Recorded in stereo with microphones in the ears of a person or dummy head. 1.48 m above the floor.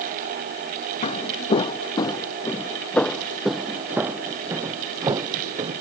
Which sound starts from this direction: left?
Footsteps, at 1.0 s.